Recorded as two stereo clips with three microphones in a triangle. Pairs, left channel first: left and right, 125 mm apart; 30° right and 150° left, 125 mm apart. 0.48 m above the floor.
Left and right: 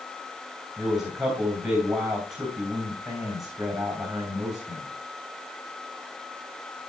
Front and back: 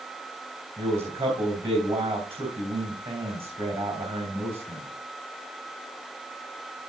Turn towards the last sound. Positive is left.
turn(degrees=-175)